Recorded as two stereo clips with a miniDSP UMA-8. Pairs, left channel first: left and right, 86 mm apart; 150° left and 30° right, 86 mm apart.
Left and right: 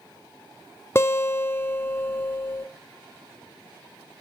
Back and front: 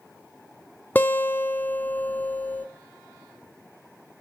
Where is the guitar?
105° left, 0.8 m.